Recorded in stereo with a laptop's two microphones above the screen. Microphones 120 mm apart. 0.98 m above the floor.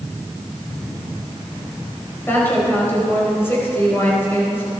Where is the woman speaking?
20° left (ahead or behind), 5 m.